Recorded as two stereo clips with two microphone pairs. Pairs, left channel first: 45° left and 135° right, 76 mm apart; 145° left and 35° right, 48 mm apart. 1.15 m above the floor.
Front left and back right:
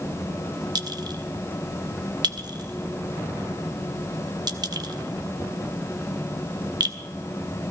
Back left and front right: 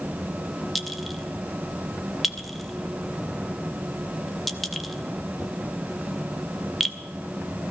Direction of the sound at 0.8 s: 130° right.